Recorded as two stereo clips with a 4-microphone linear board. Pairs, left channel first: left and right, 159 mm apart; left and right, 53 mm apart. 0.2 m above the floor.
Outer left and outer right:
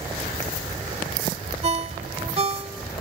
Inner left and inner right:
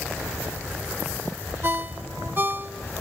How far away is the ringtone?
About 0.5 m.